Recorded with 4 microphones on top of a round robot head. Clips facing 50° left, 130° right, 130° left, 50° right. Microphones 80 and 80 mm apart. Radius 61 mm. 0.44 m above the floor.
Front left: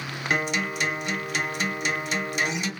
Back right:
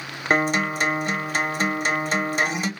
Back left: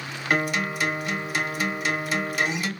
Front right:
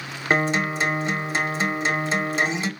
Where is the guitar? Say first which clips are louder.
Back right 6 dB, front right 3 dB; 100° right, 0.9 m.